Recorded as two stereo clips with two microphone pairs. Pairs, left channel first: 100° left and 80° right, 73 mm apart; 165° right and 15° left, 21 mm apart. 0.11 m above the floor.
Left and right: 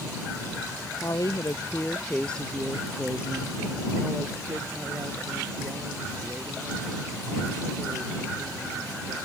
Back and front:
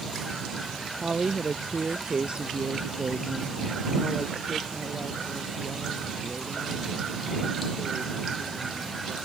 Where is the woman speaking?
80° left; by 9.2 s 45° right.